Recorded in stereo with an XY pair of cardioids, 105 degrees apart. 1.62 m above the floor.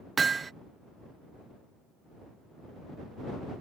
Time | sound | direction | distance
0.2 | hammering | 35° right | ?